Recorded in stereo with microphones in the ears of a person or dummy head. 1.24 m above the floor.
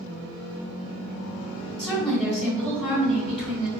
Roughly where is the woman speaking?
Centre.